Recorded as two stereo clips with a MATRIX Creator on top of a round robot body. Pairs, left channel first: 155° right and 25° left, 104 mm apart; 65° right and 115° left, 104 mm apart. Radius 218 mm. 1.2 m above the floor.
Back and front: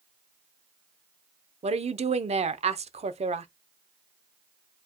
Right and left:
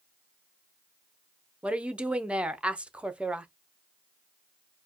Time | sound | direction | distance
1.6 | a woman speaking | 30° left | 0.8 m